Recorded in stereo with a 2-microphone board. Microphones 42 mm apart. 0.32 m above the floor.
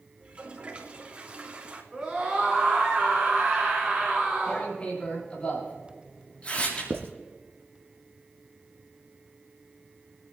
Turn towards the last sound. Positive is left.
turn(degrees=-80)